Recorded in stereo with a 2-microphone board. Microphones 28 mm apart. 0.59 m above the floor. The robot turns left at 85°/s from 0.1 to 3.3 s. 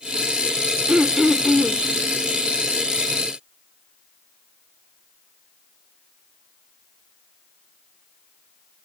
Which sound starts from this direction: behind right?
Throat clearing, at 0.9 s.